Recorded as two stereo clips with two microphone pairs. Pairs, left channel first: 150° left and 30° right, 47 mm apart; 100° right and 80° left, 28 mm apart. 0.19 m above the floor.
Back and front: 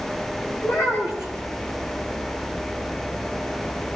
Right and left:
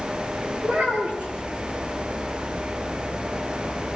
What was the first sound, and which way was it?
A child speaking, 130° left.